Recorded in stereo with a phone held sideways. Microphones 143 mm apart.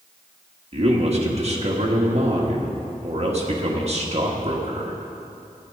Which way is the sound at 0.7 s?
50° right (ahead or behind).